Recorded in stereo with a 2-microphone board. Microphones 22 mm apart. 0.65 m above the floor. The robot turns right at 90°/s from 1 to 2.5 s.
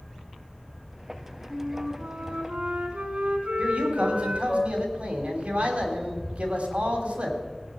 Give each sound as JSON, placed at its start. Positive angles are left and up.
{"t": 1.5, "sound": "a flute", "azimuth_deg": -160, "distance_m": 2.0}
{"t": 3.6, "sound": "a man speaking", "side_deg": -75, "distance_m": 3.0}